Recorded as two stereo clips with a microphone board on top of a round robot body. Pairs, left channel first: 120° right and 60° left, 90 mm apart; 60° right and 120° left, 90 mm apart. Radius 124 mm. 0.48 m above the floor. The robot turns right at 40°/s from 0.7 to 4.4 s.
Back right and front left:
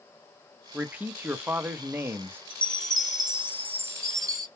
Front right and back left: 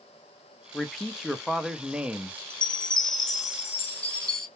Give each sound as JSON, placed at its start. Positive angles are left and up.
{"t": 0.7, "sound": "a man speaking", "azimuth_deg": 15, "distance_m": 0.7}
{"t": 2.5, "sound": "a chime", "azimuth_deg": -50, "distance_m": 0.8}